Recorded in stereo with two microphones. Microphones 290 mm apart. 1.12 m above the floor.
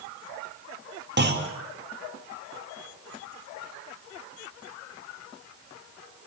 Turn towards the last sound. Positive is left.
turn(degrees=-35)  # may be behind; listen again after turning